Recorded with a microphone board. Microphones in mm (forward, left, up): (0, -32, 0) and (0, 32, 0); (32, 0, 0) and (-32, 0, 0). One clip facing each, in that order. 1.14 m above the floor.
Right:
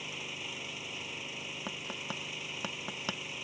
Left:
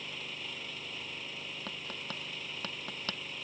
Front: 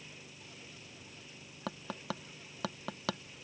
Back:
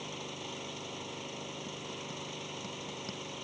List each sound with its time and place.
0.0 s an engine running: 175° right
1.7 s tapping: 10° right